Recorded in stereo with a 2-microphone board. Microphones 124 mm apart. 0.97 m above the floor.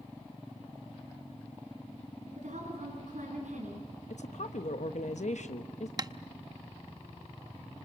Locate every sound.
2.4 s a woman speaking: 75° right (ahead or behind), 8 m
4.1 s a woman speaking: 70° left (ahead or behind), 0.9 m
6.0 s tapping: 30° right (ahead or behind), 0.6 m